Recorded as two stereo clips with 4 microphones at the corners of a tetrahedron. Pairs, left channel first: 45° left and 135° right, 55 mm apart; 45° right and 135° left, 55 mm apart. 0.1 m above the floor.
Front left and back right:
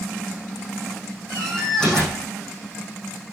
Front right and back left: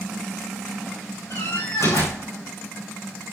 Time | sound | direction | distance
1.3 | a door slam | 35° right | 5 m